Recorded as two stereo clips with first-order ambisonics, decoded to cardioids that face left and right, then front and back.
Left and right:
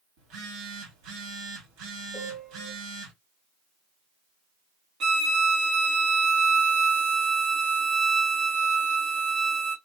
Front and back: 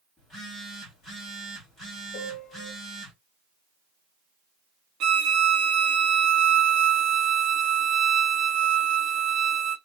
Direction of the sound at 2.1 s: 5° right.